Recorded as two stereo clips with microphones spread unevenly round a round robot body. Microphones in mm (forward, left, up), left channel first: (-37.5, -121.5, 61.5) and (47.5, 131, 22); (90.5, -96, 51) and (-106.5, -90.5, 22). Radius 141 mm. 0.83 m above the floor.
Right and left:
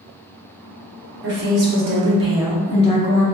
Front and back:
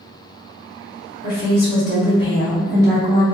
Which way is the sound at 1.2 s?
40° left.